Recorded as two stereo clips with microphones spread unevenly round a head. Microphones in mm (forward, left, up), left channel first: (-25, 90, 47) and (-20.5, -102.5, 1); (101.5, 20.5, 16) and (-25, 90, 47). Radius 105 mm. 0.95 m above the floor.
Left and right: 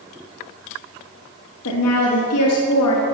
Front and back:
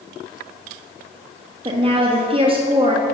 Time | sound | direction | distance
1.6 | a woman speaking | 95° left | 1.6 m